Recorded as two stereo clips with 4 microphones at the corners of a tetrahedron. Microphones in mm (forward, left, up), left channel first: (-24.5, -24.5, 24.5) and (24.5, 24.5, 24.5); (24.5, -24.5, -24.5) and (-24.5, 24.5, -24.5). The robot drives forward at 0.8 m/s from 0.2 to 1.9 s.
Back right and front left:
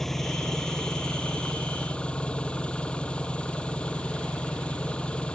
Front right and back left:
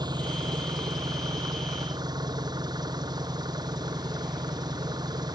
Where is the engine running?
140° left; by 5.4 s 150° left.